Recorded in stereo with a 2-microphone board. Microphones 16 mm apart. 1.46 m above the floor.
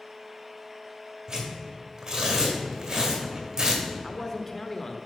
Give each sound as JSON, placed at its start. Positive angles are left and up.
{"t": 1.3, "sound": "tearing paper", "side_deg": -45, "distance_m": 1.8}
{"t": 4.0, "sound": "a man speaking", "side_deg": 25, "distance_m": 0.6}